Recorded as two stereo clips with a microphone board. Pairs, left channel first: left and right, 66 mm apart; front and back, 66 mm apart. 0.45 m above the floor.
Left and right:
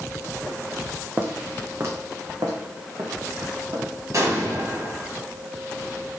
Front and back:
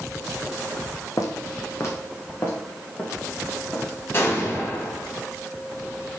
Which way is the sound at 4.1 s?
50° right.